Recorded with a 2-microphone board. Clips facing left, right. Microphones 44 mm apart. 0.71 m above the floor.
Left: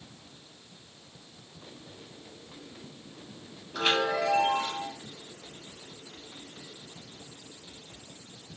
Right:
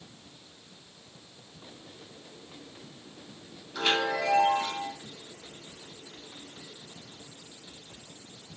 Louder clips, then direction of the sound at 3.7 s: Left 1 dB; 20° left (ahead or behind).